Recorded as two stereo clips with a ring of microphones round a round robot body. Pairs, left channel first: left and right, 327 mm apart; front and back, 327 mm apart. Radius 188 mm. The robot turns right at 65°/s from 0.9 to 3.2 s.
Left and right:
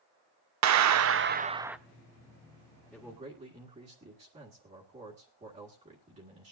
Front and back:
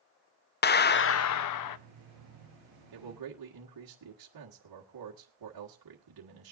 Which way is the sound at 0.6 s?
60° right.